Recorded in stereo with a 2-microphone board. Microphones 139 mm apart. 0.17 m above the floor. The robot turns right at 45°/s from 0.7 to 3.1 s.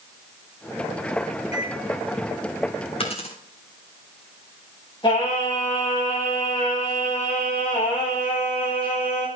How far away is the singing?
About 8 m.